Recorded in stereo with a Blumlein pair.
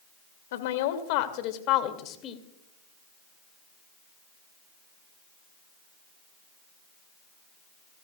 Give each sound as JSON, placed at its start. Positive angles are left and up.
{"t": 0.5, "sound": "a woman speaking", "azimuth_deg": 55, "distance_m": 2.5}